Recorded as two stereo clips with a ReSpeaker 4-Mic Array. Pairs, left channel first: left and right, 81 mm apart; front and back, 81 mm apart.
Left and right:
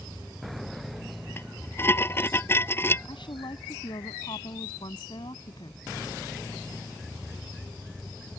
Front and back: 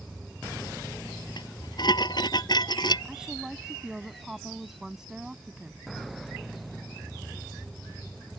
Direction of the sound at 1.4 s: 30° left.